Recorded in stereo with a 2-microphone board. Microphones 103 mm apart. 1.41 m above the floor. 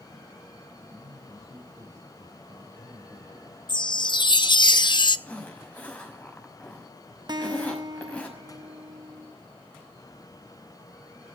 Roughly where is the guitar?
Right.